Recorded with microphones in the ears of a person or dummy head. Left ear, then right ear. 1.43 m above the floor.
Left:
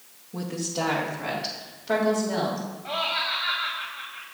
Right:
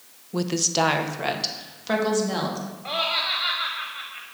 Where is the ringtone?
No ringtone in this recording.